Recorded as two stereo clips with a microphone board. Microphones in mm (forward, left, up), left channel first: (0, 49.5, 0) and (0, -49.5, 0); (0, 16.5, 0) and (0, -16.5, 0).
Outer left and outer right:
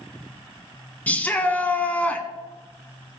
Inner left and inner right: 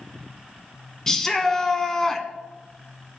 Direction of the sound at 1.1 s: 15° left (ahead or behind).